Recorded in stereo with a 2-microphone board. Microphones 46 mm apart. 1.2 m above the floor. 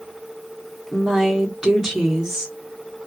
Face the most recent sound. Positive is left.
turn(degrees=-10)  # may be behind; listen again after turning